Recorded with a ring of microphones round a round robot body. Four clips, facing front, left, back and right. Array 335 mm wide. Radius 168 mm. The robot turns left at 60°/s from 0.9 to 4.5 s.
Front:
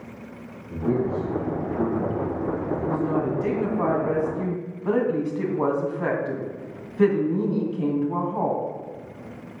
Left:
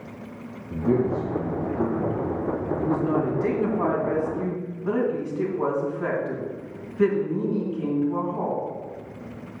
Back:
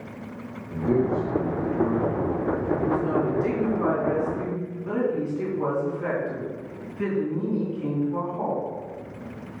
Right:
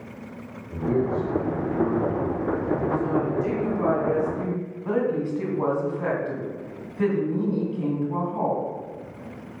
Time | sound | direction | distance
0.7 | a man speaking | 115° left | 3.5 m
2.8 | a woman speaking | 100° left | 2.5 m